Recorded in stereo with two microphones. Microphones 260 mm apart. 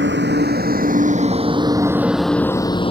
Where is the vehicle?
45° right (ahead or behind); by 2.9 s 20° left (ahead or behind).